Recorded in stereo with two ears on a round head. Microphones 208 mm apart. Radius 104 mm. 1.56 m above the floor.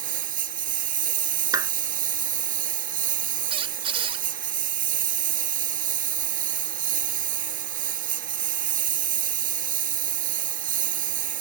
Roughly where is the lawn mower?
Right.